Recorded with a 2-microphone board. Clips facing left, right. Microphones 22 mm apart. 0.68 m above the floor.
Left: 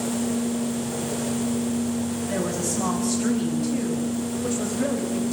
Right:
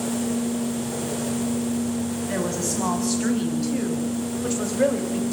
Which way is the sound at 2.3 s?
70° right (ahead or behind).